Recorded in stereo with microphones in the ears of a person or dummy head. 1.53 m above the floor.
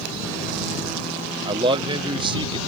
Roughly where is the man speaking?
Right.